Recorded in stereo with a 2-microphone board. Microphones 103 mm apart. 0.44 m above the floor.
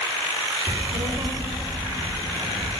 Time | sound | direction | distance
0.7 | a child speaking | 20° right (ahead or behind) | 0.6 m